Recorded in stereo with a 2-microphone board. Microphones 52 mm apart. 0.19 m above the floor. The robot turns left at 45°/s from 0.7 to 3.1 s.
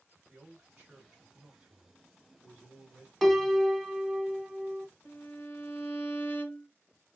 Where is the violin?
40° left (ahead or behind), 0.7 m.